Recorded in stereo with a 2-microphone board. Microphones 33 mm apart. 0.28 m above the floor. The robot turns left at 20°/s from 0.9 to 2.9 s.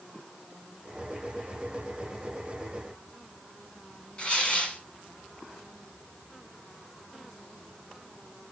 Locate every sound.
4.2 s tearing paper: 30° left (ahead or behind), 1.5 m